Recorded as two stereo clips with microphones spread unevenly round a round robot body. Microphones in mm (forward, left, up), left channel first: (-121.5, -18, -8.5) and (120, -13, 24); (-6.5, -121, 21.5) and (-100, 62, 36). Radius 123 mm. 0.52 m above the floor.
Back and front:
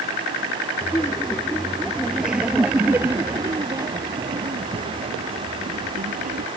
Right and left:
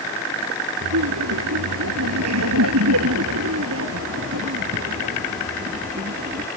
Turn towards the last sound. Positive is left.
turn(degrees=60)